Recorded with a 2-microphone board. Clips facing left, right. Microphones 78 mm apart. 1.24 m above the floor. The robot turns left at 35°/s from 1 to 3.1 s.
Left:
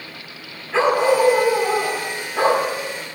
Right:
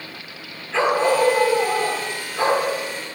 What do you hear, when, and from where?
0.7 s a dog barking: 170° left, 7 m; by 3.0 s 95° left, 7 m